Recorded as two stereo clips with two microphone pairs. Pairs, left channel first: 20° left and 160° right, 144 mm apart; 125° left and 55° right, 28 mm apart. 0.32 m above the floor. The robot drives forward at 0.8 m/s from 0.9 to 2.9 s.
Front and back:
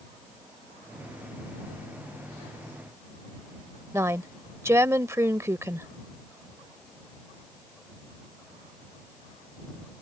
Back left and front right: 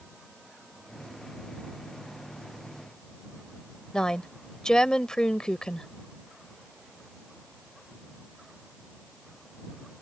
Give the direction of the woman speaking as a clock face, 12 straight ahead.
7 o'clock.